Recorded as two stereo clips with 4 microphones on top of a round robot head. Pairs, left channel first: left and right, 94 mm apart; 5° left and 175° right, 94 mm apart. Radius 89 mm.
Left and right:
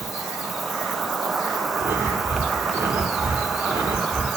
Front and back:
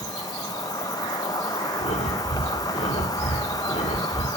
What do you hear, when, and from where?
0.0 s an insect: straight ahead, 1.1 m
1.8 s breathing: 15° right, 3 m